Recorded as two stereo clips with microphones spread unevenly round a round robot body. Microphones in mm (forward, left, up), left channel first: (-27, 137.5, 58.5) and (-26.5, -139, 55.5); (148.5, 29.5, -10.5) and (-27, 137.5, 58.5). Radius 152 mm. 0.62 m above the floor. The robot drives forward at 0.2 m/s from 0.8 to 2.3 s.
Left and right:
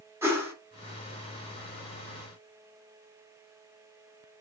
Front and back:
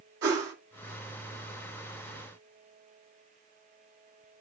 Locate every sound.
0.2 s a whoosh: 170° right, 1.7 m